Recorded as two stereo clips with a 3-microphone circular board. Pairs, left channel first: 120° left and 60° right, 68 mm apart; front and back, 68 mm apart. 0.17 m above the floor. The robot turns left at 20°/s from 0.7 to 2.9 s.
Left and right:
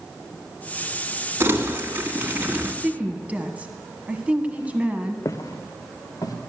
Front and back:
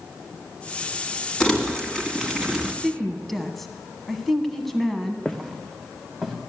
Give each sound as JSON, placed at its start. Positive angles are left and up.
{"t": 1.4, "sound": "crumpling", "azimuth_deg": -75, "distance_m": 1.7}
{"t": 2.8, "sound": "a woman speaking", "azimuth_deg": -80, "distance_m": 1.1}
{"t": 5.2, "sound": "footsteps", "azimuth_deg": 85, "distance_m": 1.0}